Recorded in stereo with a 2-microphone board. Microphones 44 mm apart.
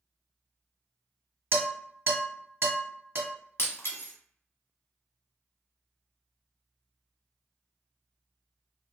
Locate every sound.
1.5 s dishes clattering: 60° right (ahead or behind), 1.6 m
3.6 s breaking glass: 70° left (ahead or behind), 0.7 m